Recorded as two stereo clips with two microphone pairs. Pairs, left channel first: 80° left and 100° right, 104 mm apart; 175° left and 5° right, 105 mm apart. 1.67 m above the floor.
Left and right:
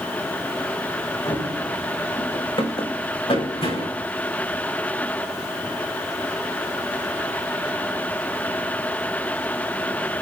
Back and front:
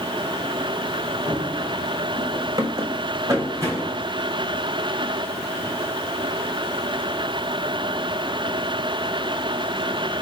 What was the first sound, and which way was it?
Running footsteps, 45° left.